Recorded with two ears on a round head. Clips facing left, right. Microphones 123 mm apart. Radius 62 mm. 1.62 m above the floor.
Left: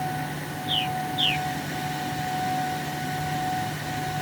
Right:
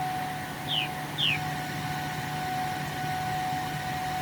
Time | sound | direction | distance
0.7 | a bird | 45° left (ahead or behind) | ?